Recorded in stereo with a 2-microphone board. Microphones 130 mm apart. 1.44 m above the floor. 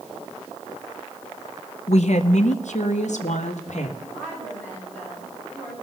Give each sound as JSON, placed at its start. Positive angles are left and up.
{"t": 1.9, "sound": "a woman speaking", "side_deg": 60, "distance_m": 0.6}
{"t": 4.0, "sound": "a woman speaking", "side_deg": 15, "distance_m": 8.5}